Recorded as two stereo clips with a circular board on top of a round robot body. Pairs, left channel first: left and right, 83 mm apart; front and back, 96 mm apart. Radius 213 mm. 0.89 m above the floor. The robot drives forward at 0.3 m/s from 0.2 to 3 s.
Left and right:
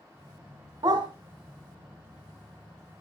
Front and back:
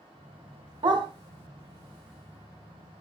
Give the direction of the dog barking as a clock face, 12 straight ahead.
5 o'clock.